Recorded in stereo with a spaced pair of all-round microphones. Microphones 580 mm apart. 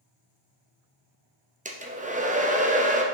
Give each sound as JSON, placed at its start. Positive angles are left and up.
{"t": 1.6, "sound": "a hair dryer", "side_deg": -15, "distance_m": 0.7}